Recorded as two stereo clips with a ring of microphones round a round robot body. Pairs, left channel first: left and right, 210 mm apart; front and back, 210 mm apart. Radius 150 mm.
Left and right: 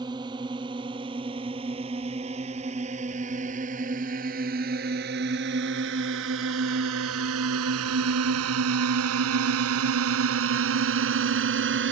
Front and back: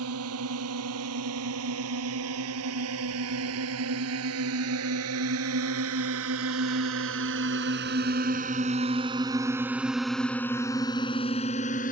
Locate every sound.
0.0 s a drone: 165° right; by 11.9 s 65° right